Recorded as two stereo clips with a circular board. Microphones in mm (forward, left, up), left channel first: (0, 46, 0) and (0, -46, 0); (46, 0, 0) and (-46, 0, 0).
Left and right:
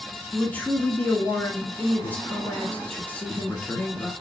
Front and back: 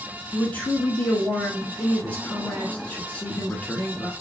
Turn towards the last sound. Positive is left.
turn(degrees=45)